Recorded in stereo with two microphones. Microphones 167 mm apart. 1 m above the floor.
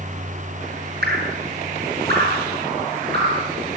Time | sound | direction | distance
1.0 | dripping | 75° right (ahead or behind) | 9.5 m